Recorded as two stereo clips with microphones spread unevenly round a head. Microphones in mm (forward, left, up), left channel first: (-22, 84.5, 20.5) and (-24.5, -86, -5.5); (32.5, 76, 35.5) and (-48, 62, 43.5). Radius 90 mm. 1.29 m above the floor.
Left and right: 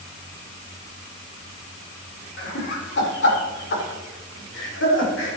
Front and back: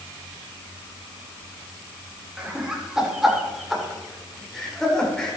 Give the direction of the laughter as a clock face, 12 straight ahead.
8 o'clock.